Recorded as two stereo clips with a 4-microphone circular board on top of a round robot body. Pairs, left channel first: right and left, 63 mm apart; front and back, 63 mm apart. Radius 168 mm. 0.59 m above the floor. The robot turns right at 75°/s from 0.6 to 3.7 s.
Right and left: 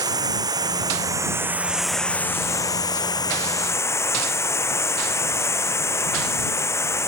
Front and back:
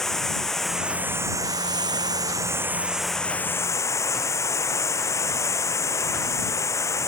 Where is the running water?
85° left; by 7.1 s 45° right.